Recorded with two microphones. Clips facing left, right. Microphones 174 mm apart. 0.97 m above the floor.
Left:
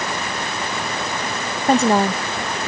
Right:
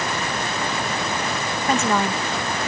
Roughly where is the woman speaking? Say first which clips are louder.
Left 6 dB; left.